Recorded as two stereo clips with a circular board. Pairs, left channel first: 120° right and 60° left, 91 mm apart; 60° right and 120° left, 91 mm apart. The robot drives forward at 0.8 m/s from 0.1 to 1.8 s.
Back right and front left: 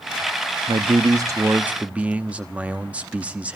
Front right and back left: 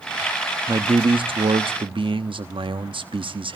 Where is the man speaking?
75° left, 0.8 m; by 3.5 s 135° left, 1.0 m.